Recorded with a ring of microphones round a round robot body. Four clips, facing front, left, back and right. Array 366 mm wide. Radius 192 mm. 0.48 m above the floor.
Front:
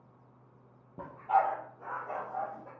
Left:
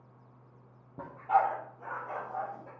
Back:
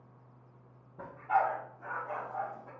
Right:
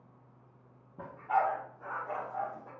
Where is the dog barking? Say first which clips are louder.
Left 3 dB, front 2 dB; 40° left, 3.5 m; by 2.7 s 10° left, 5 m.